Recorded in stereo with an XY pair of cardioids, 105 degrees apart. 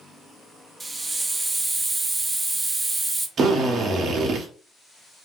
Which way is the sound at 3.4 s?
50° right.